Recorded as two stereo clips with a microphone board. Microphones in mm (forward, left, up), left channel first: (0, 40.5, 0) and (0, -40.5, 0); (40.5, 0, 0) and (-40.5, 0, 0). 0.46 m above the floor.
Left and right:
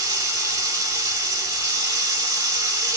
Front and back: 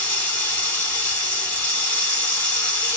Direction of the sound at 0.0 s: 65° right.